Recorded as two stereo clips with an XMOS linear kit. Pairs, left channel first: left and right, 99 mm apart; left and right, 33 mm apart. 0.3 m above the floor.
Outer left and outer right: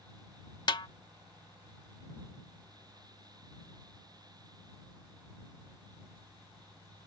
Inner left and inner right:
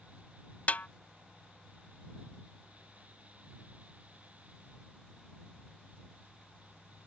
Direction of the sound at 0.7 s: 45° left (ahead or behind).